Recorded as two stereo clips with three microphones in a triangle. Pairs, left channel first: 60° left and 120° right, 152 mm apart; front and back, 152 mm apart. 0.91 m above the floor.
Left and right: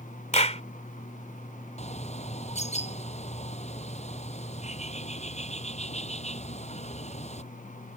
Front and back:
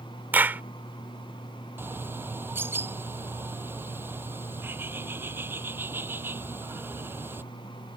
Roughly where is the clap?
Left.